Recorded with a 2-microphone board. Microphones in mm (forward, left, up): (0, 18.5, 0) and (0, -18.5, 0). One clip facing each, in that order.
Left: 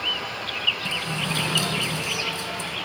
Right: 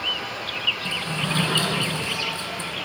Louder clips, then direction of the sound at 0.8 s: Right 1 dB; 30° right (ahead or behind).